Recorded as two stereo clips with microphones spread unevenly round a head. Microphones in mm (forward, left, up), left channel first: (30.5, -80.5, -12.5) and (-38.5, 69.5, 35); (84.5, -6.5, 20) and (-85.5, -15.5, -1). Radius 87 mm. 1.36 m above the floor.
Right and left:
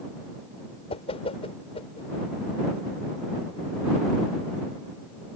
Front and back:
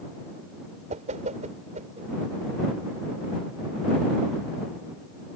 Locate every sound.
0.9 s a whoosh: 125° right